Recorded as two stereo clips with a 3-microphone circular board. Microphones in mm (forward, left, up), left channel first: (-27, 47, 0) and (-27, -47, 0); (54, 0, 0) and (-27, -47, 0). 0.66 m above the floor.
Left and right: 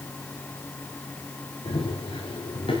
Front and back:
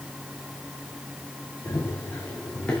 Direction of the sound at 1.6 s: 95° left.